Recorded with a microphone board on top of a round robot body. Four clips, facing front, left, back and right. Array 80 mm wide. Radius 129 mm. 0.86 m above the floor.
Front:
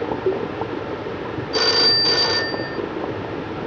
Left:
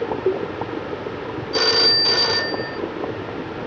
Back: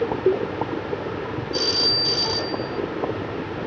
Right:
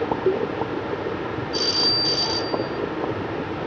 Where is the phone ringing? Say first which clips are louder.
Left 9 dB, front 7 dB; 45° left, 0.8 m.